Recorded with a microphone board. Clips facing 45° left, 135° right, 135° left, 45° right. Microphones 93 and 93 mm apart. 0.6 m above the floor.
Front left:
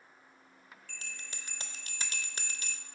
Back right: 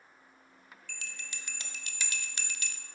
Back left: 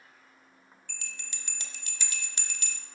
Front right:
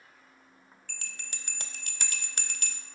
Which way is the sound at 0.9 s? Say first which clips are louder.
Back right 2 dB, front right 1 dB; 10° right.